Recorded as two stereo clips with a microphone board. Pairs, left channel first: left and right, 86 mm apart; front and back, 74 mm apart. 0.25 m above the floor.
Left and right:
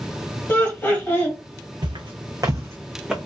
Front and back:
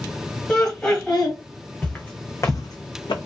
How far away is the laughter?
About 1.2 m.